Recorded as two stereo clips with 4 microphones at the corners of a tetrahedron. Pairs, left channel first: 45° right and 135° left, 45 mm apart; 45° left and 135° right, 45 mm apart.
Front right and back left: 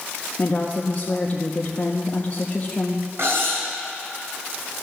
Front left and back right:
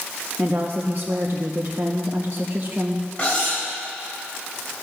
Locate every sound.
0.4 s a woman speaking: 100° right, 0.7 m
3.2 s cutlery clinking: 110° left, 3 m